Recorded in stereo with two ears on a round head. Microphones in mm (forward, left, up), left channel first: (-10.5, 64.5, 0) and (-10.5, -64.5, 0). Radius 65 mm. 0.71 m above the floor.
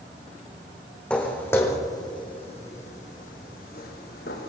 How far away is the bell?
No bell in this recording.